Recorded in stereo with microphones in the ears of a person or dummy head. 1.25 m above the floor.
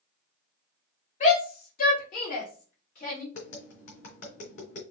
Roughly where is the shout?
Left.